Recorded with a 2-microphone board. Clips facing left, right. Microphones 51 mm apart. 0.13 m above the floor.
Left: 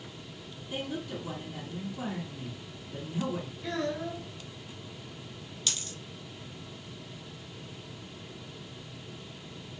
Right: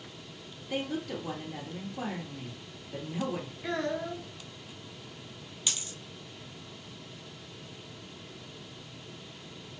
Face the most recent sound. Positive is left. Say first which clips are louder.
# even
turn(degrees=-20)  # may be behind; listen again after turning